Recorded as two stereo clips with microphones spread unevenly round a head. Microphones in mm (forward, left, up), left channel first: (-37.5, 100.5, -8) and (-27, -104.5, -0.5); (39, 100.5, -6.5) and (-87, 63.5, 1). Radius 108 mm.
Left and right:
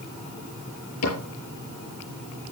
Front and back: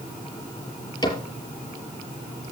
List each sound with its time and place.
1.0 s a cupboard door: 70° left, 6.5 m